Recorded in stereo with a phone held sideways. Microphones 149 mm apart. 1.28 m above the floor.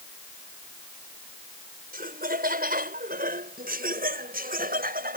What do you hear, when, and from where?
1.9 s laughter: 85° right; by 5.2 s 80° right